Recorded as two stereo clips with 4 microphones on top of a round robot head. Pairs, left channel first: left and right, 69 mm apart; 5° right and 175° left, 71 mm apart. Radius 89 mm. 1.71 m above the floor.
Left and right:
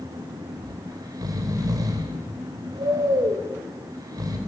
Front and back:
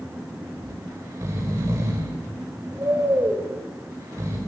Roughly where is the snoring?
Behind right.